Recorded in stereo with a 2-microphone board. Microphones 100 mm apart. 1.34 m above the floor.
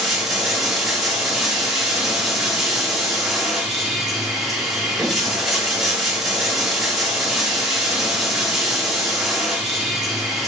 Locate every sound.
0.0 s running water: 5° right (ahead or behind), 1.0 m